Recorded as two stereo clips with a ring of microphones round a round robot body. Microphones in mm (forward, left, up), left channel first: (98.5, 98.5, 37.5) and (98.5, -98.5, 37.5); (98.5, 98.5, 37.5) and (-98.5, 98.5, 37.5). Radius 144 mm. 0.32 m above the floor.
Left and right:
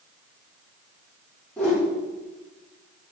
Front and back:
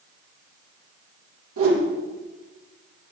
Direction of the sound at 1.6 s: 175° left.